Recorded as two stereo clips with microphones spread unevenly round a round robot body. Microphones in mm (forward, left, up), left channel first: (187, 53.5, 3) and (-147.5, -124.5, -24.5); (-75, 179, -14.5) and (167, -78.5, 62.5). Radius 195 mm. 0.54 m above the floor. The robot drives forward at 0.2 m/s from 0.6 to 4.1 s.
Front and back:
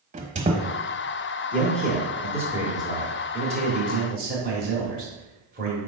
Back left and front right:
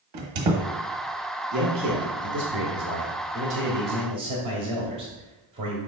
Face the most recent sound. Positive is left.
turn(degrees=-130)